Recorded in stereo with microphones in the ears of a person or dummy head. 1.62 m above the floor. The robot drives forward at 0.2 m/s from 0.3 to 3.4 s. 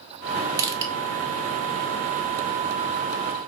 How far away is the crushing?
About 0.5 m.